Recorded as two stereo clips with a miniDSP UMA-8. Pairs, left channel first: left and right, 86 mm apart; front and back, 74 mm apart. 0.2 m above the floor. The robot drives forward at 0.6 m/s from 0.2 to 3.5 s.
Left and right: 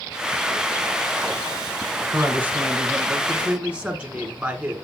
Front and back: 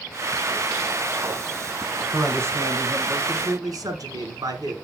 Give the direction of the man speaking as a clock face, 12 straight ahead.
5 o'clock.